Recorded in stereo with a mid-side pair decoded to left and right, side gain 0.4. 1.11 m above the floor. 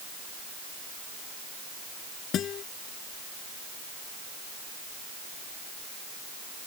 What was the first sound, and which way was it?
A guitar, 70° left.